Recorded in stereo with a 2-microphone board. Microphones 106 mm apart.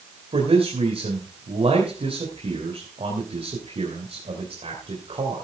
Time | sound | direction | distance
0.3 | a man speaking | 60° right (ahead or behind) | 3 m